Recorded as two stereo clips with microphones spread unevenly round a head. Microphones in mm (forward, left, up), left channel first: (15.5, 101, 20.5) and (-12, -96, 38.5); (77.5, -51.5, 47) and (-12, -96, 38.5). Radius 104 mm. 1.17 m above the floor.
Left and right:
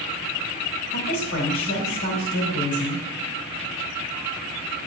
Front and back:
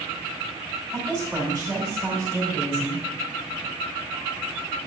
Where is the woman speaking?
110° left, 2.5 m.